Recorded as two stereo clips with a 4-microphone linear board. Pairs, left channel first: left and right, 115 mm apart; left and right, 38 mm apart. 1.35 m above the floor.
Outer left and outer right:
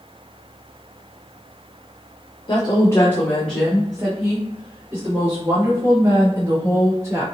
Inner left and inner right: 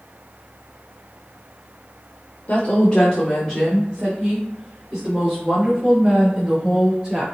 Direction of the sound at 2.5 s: 40° left (ahead or behind).